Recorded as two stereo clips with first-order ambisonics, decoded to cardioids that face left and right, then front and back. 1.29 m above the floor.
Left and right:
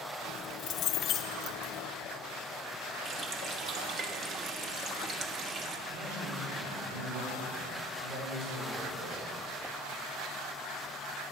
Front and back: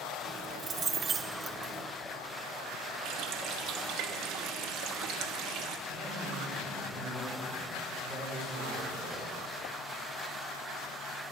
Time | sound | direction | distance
0.2 | keys jangling | 120° left | 0.6 m
3.0 | a running tap | 145° right | 1.0 m
5.9 | a man speaking | 85° right | 6.5 m